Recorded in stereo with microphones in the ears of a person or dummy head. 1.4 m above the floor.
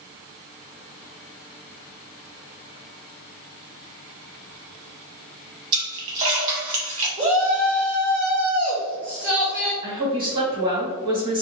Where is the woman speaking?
25° right (ahead or behind), 2.0 m.